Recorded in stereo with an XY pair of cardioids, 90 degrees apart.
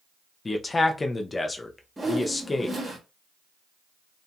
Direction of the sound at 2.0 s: 20° right.